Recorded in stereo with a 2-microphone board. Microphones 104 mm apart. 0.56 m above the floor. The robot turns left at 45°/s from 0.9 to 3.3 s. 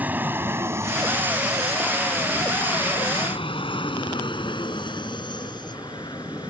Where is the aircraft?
15° right (ahead or behind); by 6.5 s 40° left (ahead or behind).